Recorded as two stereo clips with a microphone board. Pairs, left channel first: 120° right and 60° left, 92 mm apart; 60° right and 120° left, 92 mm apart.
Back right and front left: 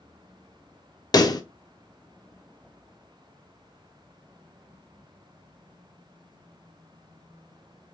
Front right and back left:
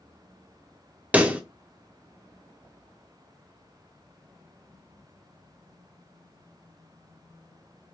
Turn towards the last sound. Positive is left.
turn(degrees=-165)